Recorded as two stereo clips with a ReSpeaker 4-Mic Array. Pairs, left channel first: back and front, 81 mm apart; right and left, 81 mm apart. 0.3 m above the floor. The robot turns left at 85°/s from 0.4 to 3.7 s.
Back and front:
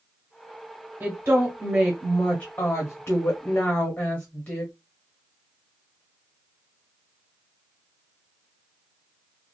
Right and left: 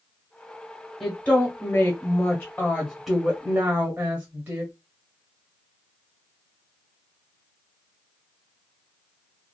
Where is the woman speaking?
5° right, 1.4 m; by 4.7 s 125° left, 1.4 m.